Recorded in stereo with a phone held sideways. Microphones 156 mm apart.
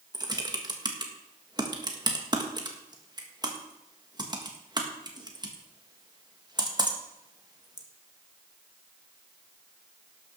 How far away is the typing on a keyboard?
About 1.6 m.